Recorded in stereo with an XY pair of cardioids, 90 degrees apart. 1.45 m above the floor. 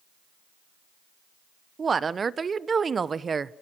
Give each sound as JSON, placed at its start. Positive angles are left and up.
{"t": 1.8, "sound": "a woman speaking", "azimuth_deg": -40, "distance_m": 1.0}